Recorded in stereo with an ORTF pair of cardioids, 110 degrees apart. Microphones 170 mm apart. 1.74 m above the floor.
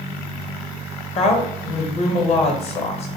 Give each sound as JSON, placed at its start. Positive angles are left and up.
{"t": 1.1, "sound": "a woman speaking", "azimuth_deg": 35, "distance_m": 0.8}